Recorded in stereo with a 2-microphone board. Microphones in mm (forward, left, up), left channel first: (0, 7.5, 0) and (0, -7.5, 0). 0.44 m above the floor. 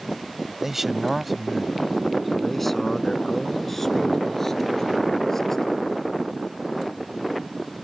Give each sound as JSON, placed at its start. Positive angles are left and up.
{"t": 0.6, "sound": "a man speaking", "side_deg": -20}